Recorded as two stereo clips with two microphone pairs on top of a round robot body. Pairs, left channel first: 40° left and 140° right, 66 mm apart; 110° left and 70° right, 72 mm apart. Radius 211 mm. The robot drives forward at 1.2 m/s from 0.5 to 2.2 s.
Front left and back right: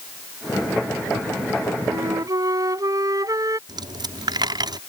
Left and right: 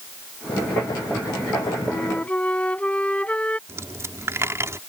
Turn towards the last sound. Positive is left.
turn(degrees=-125)